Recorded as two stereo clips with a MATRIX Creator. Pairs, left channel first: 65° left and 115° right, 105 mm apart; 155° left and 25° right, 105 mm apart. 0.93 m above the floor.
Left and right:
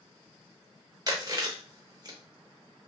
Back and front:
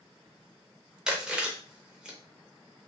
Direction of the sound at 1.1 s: 100° right.